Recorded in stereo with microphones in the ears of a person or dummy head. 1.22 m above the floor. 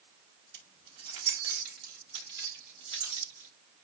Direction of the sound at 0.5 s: 85° right.